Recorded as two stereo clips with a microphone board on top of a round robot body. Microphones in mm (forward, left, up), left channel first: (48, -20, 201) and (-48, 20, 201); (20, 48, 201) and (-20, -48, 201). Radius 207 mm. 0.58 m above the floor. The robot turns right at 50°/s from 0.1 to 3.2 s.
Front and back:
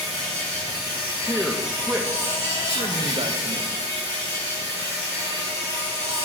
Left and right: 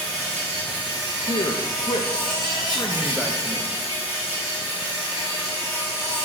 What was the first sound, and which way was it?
An insect, 115° right.